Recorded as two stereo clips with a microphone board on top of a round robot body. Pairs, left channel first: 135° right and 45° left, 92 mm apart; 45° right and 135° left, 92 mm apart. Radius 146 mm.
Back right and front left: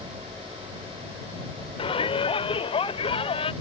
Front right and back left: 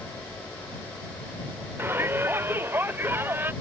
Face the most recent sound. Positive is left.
turn(degrees=-155)